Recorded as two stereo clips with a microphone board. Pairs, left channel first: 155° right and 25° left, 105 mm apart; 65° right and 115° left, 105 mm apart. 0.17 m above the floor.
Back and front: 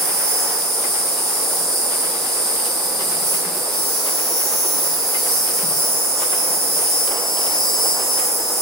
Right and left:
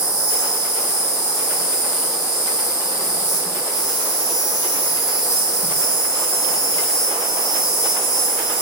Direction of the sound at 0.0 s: 75° right.